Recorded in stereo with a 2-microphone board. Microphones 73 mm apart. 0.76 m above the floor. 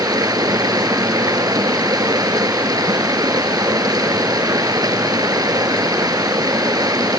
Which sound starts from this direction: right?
Running water, at 0.0 s.